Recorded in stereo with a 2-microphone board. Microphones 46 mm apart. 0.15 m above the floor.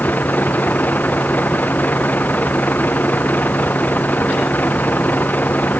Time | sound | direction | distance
0.0 | a vehicle | 40° left (ahead or behind) | ?